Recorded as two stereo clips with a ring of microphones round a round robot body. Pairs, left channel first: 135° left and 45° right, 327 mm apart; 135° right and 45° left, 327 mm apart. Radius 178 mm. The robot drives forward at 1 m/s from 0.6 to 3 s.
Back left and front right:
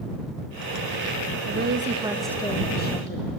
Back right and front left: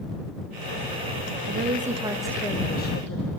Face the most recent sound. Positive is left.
turn(degrees=180)